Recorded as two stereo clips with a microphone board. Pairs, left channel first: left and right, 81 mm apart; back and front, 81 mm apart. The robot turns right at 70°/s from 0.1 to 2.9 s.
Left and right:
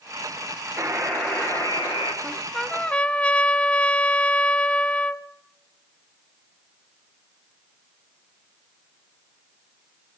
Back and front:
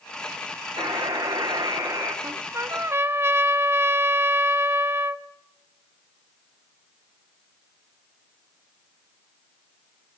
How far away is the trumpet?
About 0.6 m.